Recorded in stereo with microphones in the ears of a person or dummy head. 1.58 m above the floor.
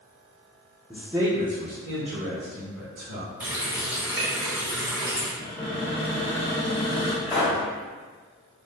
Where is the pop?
5° left (ahead or behind), 1.1 m.